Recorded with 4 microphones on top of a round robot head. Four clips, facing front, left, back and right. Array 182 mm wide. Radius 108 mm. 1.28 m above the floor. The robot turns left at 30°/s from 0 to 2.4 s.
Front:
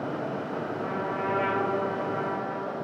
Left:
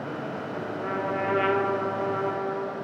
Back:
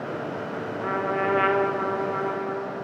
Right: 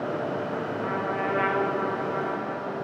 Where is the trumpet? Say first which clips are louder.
Left 2 dB, back 7 dB; 175° right, 1.3 m; by 2.8 s 135° left, 1.3 m.